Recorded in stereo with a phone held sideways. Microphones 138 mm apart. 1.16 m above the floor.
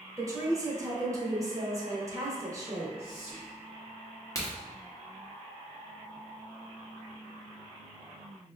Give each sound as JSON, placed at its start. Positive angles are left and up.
{"t": 0.2, "sound": "a woman speaking", "side_deg": -25, "distance_m": 0.6}
{"t": 3.0, "sound": "whispering", "side_deg": -25, "distance_m": 1.0}
{"t": 4.3, "sound": "a crack", "side_deg": 25, "distance_m": 1.0}